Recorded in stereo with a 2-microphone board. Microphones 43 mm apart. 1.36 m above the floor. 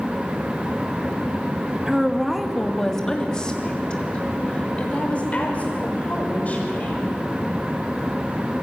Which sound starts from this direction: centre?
A woman speaking, at 1.9 s.